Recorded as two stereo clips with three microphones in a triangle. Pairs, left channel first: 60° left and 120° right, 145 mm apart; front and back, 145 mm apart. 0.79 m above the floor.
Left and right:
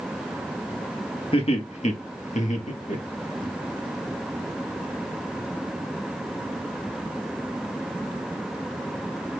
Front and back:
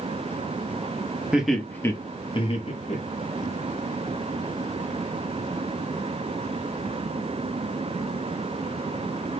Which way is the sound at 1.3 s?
100° left.